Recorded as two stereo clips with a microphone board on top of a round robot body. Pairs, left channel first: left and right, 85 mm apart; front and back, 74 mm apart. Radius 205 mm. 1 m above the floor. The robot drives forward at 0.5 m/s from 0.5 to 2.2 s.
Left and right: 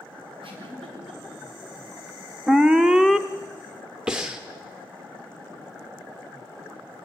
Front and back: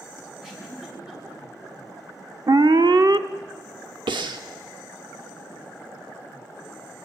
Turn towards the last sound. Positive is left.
turn(degrees=-175)